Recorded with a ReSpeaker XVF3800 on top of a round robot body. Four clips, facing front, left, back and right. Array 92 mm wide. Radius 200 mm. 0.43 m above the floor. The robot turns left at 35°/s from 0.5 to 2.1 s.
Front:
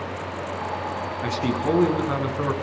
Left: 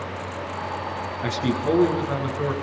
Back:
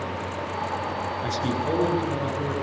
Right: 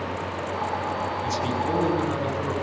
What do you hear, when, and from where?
1.2 s a man speaking: 40° left, 7.5 m; by 2.5 s 5° left, 7.5 m